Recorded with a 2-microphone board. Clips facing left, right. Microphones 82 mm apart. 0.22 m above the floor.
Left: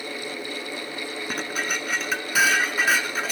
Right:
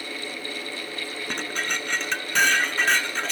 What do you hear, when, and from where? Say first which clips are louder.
1.3 s dishes clattering: left 1 dB; 5° left (ahead or behind), 1.5 m